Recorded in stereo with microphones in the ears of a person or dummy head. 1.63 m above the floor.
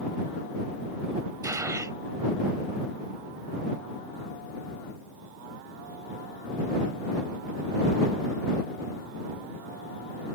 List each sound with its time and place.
1.4 s a gunshot: 15° right (ahead or behind)